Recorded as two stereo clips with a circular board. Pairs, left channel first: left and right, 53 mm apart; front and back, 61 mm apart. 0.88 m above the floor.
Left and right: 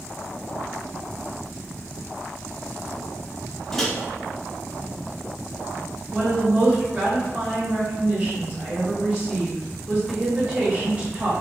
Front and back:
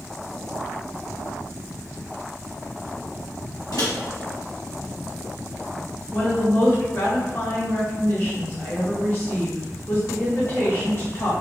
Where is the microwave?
5° left, 0.9 m.